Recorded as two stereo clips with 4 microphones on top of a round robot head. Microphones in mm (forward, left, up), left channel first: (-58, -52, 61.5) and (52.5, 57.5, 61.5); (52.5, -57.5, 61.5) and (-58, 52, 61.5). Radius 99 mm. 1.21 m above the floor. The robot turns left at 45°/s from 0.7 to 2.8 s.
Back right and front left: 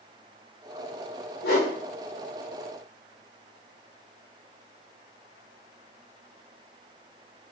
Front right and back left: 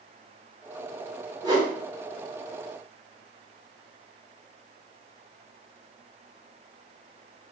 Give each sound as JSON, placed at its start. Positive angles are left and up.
{"t": 1.4, "sound": "a whoosh", "azimuth_deg": -160, "distance_m": 0.8}